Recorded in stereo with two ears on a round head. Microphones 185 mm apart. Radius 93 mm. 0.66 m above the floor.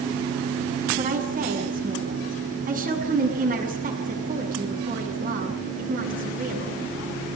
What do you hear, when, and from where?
1.0 s a woman speaking: 40° right (ahead or behind), 6.5 m